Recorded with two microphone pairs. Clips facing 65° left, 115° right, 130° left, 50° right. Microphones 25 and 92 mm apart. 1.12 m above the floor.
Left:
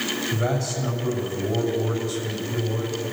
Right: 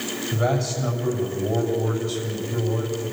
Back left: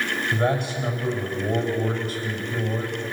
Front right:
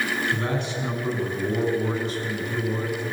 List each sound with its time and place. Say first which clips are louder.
0.3 s a man speaking: right 2 dB, back left 3 dB; 155° left, 6.5 m